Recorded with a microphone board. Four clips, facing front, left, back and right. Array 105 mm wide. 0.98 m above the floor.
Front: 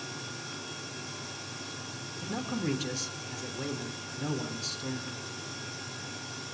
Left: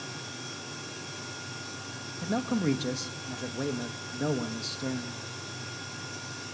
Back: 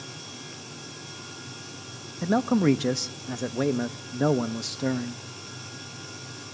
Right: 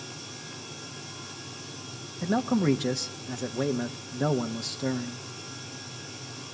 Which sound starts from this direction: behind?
A man speaking, at 2.2 s.